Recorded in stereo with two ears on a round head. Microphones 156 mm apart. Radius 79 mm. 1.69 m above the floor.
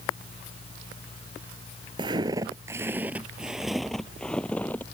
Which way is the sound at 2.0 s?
30° right (ahead or behind).